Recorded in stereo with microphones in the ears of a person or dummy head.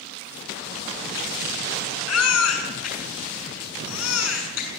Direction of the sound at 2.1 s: 85° left.